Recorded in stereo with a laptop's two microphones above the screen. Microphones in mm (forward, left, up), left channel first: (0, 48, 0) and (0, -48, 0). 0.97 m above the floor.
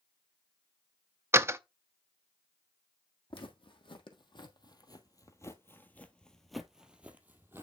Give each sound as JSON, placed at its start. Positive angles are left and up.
{"t": 1.3, "sound": "a door slam", "side_deg": -25, "distance_m": 0.6}
{"t": 3.3, "sound": "footsteps", "side_deg": 65, "distance_m": 2.5}